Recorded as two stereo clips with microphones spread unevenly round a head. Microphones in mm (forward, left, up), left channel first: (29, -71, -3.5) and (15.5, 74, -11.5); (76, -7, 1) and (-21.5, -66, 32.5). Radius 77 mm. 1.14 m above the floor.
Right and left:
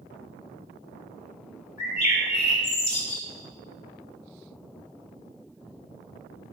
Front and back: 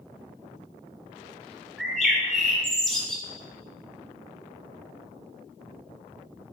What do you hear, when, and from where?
1.8 s a bird: 65° right, 1.8 m